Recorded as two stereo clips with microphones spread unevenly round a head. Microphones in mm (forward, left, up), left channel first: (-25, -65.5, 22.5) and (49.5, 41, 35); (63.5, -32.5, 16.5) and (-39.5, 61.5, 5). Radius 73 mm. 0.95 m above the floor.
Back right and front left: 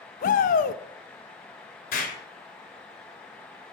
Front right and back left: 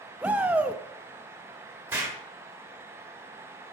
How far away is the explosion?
About 1.8 m.